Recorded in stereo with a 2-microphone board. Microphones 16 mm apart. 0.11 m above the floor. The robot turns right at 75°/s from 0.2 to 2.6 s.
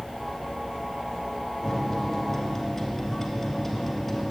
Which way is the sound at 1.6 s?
20° left (ahead or behind).